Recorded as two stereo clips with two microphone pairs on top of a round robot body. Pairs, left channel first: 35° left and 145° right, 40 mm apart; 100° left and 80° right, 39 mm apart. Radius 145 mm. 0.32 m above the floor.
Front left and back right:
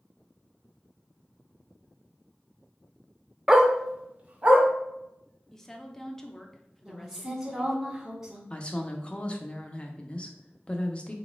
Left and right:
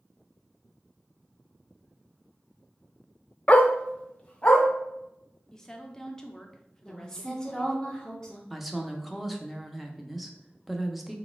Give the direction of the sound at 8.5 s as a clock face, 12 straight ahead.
11 o'clock.